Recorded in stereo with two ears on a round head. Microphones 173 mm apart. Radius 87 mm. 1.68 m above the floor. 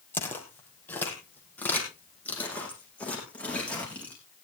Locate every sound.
0.1 s footsteps: 10° left (ahead or behind), 3 m; by 4.2 s 5° left (ahead or behind), 6 m